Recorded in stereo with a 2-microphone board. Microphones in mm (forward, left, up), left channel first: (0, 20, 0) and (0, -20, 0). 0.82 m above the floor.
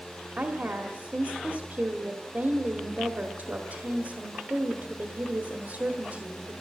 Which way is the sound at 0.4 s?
55° right (ahead or behind).